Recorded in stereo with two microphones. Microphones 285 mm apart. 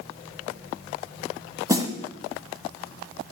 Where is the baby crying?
I don't hear a baby crying.